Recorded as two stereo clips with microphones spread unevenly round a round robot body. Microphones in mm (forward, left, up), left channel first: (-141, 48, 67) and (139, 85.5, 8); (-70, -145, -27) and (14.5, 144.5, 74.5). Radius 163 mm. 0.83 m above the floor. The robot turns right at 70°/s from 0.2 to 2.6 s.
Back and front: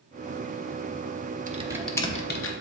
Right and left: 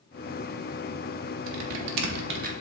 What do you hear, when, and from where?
1.5 s typing on a keyboard: 70° left, 1.0 m; by 2.5 s 145° left, 1.0 m